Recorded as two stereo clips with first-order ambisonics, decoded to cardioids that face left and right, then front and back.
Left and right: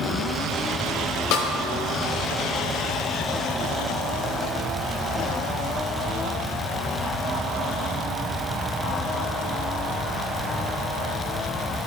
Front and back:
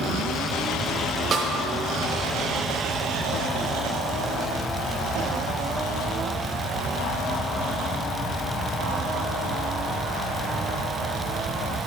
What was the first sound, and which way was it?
A snare drum, 110° left.